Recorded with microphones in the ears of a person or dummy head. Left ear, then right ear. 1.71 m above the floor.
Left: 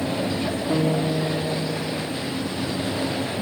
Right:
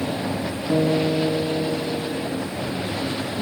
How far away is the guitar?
About 0.7 m.